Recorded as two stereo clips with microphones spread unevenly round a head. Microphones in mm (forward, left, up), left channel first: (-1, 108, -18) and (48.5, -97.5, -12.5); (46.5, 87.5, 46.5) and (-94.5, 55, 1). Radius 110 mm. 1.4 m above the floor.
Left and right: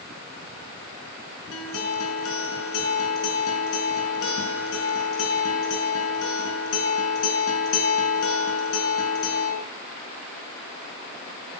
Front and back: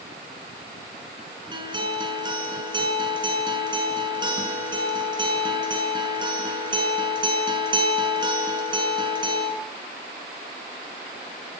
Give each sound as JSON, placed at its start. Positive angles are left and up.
{"t": 1.5, "sound": "a guitar", "azimuth_deg": 130, "distance_m": 6.0}